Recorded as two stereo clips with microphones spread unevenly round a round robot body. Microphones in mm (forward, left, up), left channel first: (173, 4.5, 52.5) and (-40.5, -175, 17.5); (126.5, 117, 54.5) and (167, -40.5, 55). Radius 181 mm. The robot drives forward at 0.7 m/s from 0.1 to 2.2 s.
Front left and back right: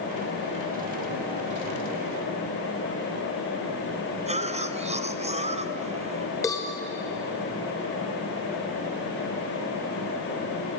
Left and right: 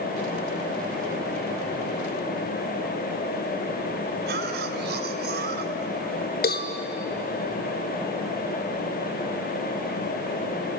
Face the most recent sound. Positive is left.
turn(degrees=125)